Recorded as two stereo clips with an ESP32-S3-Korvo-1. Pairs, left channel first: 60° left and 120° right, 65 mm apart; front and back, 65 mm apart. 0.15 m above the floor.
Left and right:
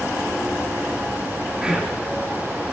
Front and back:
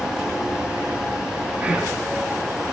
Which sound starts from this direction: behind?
Whispering, at 1.6 s.